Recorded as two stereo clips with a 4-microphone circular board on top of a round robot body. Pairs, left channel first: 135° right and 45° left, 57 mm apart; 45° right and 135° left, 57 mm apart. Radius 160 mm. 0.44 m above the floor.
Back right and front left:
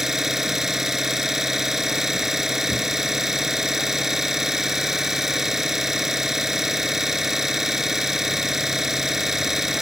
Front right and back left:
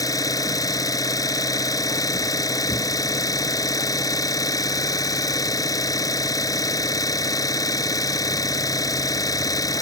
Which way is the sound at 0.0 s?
40° right.